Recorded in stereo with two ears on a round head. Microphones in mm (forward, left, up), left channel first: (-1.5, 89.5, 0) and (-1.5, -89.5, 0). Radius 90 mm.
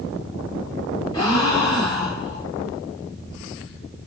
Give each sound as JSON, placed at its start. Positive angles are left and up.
{"t": 1.1, "sound": "a gasp", "side_deg": 15, "distance_m": 1.0}